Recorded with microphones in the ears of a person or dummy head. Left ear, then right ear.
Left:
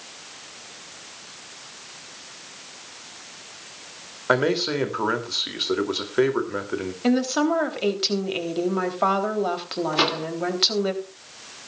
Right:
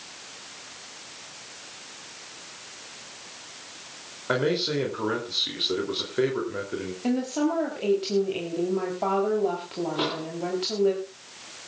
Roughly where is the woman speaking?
Left.